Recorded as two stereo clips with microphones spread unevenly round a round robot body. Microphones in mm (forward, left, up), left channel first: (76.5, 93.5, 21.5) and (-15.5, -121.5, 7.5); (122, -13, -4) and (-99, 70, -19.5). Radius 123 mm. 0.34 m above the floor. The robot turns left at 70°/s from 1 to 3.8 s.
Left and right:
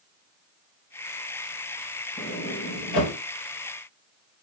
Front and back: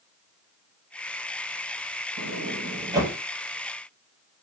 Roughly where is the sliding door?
Behind left.